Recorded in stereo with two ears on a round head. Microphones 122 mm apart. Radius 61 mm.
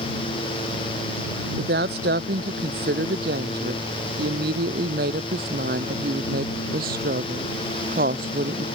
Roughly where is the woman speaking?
Right.